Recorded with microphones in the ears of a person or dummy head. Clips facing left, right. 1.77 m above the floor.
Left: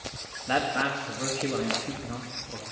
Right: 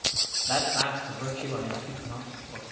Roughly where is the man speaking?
Left.